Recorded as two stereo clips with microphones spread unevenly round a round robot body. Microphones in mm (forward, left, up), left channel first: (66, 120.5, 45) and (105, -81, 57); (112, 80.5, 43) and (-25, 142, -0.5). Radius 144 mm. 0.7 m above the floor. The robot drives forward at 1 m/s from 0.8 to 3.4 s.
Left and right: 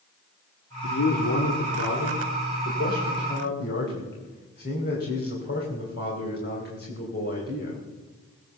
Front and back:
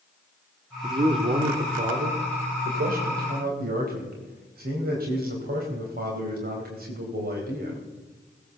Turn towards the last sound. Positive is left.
turn(degrees=150)